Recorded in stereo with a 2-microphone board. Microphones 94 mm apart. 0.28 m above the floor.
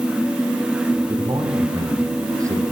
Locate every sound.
1.1 s a man speaking: 50° right (ahead or behind), 7.5 m; by 2.6 s 35° right (ahead or behind), 8 m